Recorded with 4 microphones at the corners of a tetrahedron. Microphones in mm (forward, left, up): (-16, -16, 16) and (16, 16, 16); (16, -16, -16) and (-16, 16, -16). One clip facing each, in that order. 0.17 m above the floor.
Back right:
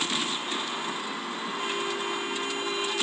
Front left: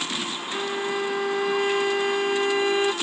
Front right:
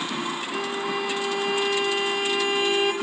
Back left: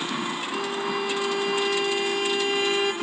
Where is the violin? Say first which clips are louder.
Front left 5 dB, even; 35° left, 0.9 m.